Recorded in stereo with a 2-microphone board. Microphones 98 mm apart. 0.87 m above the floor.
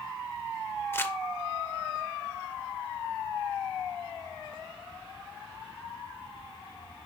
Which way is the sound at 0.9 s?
25° left (ahead or behind).